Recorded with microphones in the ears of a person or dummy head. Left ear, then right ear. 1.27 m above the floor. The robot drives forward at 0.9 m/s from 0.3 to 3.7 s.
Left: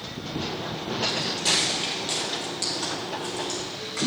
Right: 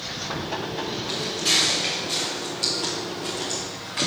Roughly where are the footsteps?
Centre.